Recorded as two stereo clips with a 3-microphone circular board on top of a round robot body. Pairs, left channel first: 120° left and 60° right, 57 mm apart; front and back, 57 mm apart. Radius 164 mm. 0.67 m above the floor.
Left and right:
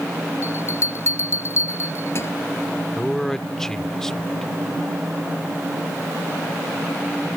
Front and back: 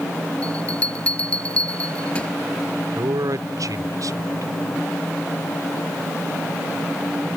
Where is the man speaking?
160° right.